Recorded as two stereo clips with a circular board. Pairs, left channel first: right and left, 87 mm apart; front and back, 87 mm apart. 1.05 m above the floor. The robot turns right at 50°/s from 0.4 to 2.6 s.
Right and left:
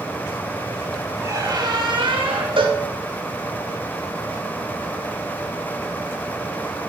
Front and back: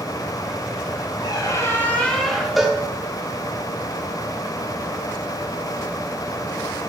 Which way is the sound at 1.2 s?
35° left.